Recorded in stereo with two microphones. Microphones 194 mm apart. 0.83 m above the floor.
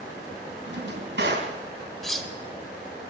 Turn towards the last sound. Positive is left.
turn(degrees=0)  # may be behind; listen again after turning